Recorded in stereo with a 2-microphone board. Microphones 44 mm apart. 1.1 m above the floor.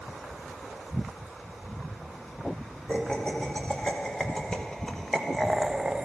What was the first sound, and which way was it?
Laughter, 25° left (ahead or behind).